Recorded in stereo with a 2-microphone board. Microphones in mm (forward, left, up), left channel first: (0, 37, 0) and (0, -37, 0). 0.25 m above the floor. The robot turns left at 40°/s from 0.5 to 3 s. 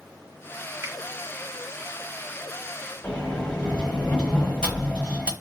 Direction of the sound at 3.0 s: 15° left (ahead or behind).